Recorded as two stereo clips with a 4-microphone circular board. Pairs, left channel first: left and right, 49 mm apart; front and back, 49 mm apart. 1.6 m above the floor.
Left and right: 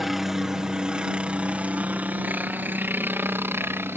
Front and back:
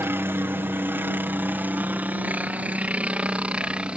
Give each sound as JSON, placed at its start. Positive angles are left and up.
{"t": 0.0, "sound": "a helicopter", "azimuth_deg": -175}